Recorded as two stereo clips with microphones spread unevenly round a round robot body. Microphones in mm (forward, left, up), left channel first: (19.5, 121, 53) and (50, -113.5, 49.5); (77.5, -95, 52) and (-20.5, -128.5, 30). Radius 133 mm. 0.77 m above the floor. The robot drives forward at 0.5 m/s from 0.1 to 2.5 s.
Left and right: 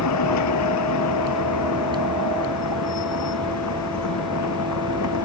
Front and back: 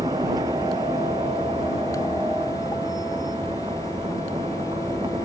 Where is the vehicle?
125° left; by 5.3 s 130° left.